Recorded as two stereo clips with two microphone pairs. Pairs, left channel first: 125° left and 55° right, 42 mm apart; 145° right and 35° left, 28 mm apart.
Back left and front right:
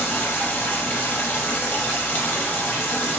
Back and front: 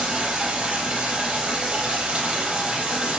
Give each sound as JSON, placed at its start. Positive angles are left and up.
{"t": 0.0, "sound": "running water", "azimuth_deg": 85, "distance_m": 6.5}